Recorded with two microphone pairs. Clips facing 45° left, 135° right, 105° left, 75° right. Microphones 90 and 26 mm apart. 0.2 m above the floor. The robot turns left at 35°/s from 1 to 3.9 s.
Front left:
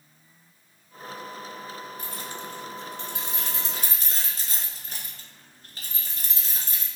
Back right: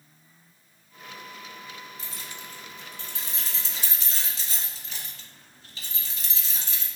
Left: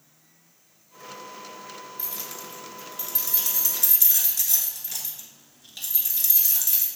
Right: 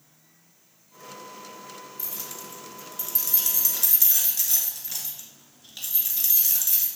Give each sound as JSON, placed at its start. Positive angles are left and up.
{"t": 2.0, "sound": "keys jangling", "azimuth_deg": 75, "distance_m": 2.0}